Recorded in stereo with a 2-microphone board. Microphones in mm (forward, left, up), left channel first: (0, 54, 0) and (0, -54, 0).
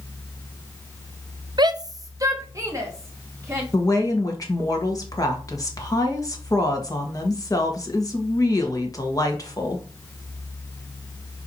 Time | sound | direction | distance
1.6 | a shout | 45° right (ahead or behind) | 0.8 m
3.7 | a woman speaking | 35° left (ahead or behind) | 2 m